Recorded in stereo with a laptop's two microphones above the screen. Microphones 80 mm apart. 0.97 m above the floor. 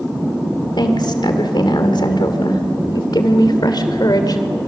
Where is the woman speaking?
75° left (ahead or behind), 2.5 m; by 4.4 s 60° left (ahead or behind), 3 m.